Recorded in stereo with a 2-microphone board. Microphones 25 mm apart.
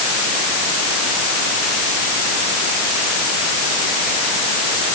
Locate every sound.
Only background noise.